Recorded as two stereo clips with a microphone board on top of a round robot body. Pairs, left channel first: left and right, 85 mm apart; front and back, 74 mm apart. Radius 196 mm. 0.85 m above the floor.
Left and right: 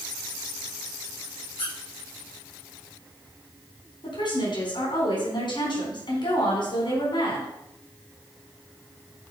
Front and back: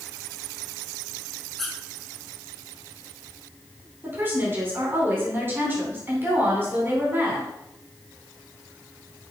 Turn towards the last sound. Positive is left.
turn(degrees=120)